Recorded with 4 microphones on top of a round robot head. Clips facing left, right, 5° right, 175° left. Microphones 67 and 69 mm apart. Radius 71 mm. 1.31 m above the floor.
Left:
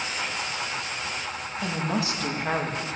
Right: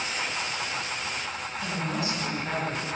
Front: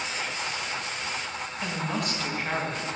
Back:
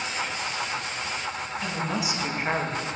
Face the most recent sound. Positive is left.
turn(degrees=125)